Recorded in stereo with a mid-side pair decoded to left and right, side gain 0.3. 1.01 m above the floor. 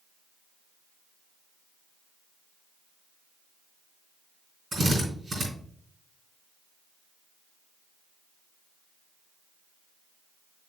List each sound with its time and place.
4.7 s a drill: 70° right, 4 m